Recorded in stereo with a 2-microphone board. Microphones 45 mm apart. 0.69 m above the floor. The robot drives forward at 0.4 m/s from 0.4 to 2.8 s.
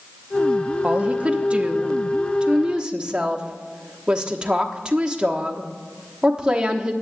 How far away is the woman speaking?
About 0.7 m.